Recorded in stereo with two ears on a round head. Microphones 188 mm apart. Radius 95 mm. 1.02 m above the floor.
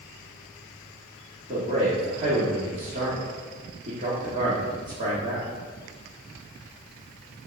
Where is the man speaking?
30° right (ahead or behind), 2 m.